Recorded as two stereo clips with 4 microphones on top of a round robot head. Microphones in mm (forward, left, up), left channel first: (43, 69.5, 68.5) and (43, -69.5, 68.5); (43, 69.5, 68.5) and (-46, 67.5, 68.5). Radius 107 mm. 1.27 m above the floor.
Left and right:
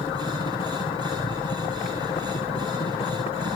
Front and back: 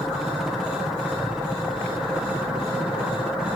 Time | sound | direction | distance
0.0 | a helicopter | 95° left | ?